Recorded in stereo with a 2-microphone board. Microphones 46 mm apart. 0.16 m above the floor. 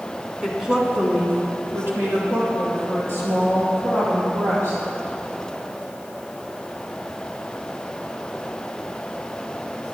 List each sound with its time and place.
0.4 s a woman speaking: centre (ahead or behind), 1.4 m; by 4.8 s 70° right (ahead or behind), 4.5 m